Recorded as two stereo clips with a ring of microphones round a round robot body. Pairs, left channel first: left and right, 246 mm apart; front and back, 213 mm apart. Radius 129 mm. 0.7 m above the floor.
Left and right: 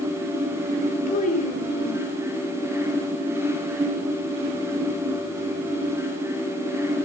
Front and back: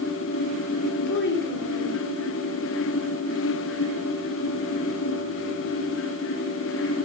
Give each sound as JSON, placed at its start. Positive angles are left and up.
{"t": 1.1, "sound": "a child speaking", "azimuth_deg": 30, "distance_m": 2.0}